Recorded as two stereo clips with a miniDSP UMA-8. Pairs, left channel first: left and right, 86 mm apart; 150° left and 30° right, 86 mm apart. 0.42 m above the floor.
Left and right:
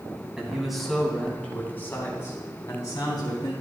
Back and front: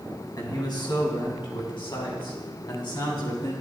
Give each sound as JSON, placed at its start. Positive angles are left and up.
{"t": 0.4, "sound": "a man speaking", "azimuth_deg": -170, "distance_m": 3.0}